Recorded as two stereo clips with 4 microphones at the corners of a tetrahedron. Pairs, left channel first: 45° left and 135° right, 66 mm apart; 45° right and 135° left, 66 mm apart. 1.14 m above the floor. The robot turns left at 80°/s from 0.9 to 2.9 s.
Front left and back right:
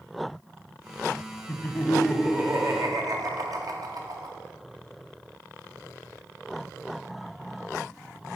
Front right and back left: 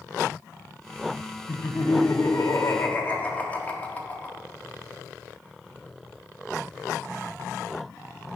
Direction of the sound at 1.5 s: Straight ahead.